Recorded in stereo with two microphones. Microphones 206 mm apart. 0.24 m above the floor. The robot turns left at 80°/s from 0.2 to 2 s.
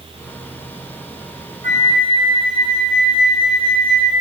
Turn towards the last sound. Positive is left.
turn(degrees=-30)  # may be behind; listen again after turning